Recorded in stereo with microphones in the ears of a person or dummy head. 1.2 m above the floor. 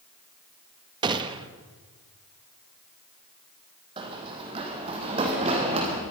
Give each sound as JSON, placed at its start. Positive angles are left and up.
{"t": 1.0, "sound": "a gunshot", "side_deg": -25, "distance_m": 1.3}
{"t": 4.0, "sound": "running footsteps", "side_deg": -25, "distance_m": 3.5}